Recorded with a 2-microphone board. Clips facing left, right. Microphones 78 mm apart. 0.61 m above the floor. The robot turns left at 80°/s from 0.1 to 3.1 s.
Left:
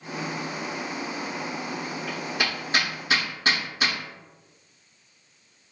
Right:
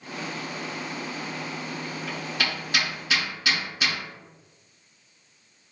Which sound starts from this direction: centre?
Hammering, at 2.1 s.